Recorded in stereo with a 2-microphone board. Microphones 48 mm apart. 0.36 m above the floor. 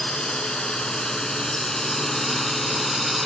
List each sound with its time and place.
0.0 s a drone: 20° left (ahead or behind); by 3.2 s centre (ahead or behind)